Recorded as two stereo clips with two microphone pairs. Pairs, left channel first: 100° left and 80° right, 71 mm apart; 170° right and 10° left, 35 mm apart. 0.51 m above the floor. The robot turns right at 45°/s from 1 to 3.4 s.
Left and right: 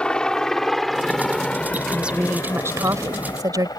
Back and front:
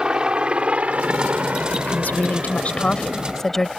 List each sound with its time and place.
0.0 s a helicopter: 35° left; by 3.8 s 100° left
1.8 s a woman speaking: 170° right; by 3.7 s 95° right